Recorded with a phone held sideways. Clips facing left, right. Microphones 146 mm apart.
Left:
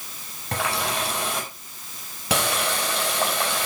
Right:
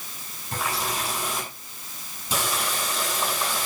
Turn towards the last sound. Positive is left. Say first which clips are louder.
# left 3 dB
turn(degrees=80)